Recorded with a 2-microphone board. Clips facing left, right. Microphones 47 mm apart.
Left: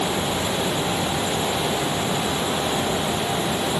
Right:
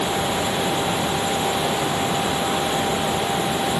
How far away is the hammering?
I don't hear hammering.